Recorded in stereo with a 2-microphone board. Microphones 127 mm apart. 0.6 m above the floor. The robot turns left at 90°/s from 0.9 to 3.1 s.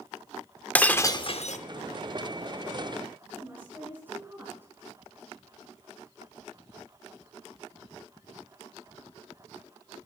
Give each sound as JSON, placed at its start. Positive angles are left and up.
{"t": 0.8, "sound": "breaking glass", "azimuth_deg": 170, "distance_m": 0.7}
{"t": 3.3, "sound": "a woman speaking", "side_deg": -15, "distance_m": 6.0}